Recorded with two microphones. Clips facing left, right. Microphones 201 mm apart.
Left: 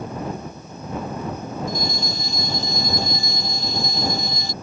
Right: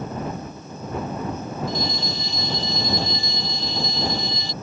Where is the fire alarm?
45° left (ahead or behind).